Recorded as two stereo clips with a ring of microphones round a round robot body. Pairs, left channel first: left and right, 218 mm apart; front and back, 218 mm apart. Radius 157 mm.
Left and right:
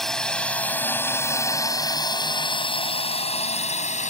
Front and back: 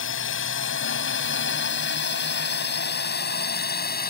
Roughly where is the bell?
No bell in this recording.